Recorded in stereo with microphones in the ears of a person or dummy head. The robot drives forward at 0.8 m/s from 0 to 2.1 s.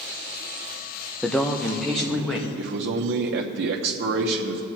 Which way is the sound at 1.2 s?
5° left (ahead or behind).